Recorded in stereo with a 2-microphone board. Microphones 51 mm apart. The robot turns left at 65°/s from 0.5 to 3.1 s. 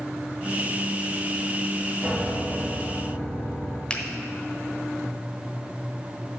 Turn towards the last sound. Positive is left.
turn(degrees=20)  # may be behind; listen again after turning